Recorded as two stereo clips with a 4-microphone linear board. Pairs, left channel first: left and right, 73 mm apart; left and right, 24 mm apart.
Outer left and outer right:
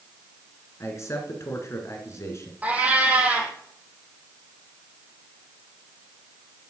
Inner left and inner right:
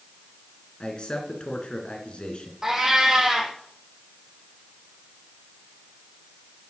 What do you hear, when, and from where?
0.8 s a man speaking: 40° left (ahead or behind), 2 m
2.6 s a cat meowing: 20° right (ahead or behind), 1.8 m